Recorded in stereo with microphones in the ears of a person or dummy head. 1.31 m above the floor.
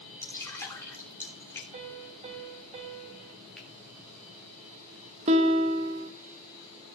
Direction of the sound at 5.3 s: 35° right (ahead or behind).